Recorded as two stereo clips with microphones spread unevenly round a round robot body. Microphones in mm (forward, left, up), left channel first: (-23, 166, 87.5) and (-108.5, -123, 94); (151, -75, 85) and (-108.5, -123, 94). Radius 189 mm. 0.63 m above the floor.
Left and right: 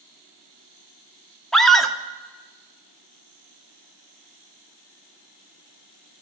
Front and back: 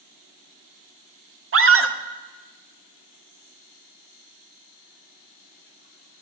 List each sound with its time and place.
1.5 s a scream: 160° left, 1.7 m